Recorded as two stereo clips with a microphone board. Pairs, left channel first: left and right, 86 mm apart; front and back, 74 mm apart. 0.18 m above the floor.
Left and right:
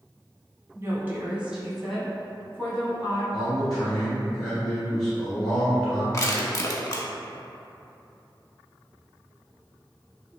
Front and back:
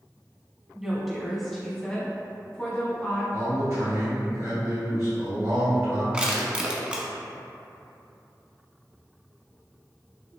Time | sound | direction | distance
0.8 | a woman speaking | 105° right | 1.1 m
3.3 | a man speaking | 170° left | 1.6 m
6.1 | crushing | 115° left | 0.6 m